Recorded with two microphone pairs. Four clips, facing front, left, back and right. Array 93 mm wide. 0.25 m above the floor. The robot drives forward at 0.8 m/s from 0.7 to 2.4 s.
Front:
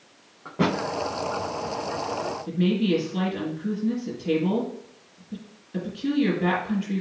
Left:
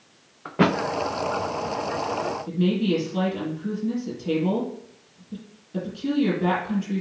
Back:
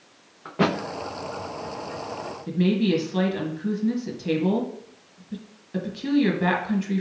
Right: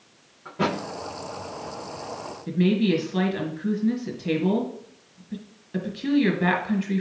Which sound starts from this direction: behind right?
A woman speaking, at 2.5 s.